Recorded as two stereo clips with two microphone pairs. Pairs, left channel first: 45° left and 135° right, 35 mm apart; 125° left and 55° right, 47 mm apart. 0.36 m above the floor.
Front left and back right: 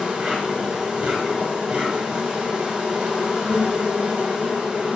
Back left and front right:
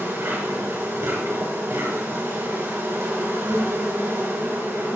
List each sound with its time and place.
0.0 s an insect: 70° right, 6 m